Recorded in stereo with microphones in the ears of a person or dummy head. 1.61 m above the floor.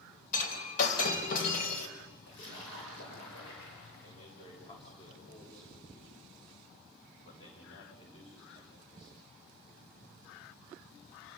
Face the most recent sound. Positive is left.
turn(degrees=40)  # may be behind; listen again after turning